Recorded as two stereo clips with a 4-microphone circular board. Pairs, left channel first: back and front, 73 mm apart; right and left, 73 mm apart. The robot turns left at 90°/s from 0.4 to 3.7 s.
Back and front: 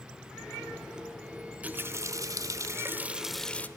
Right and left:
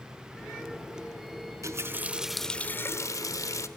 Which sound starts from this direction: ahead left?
A running tap, at 1.6 s.